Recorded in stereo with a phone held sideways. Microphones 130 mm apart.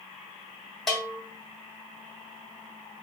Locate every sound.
0.9 s a bell: centre (ahead or behind), 1.4 m